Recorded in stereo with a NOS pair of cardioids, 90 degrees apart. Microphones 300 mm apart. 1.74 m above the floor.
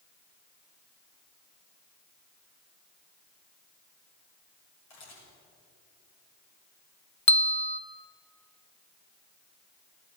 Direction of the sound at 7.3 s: 20° left.